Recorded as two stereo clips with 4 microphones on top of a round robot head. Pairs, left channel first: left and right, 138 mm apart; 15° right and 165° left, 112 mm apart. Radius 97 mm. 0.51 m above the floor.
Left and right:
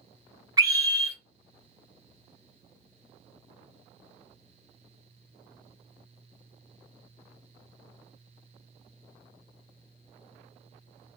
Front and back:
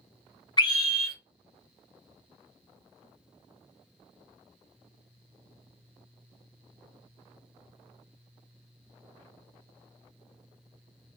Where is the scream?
40° right, 0.8 m.